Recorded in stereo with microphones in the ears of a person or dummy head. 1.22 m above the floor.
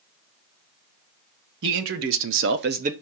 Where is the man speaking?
65° right (ahead or behind), 1.4 m; by 2.9 s 30° right (ahead or behind), 0.8 m.